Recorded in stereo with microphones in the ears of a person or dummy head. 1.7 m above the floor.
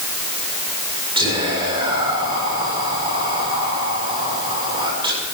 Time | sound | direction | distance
1.2 | whispering | 30° right (ahead or behind) | 6.5 m